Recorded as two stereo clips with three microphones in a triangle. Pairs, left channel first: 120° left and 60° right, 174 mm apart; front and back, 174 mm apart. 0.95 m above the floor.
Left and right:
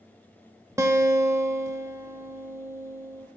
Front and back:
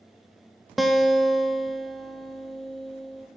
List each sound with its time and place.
0.8 s a guitar: 95° right, 0.7 m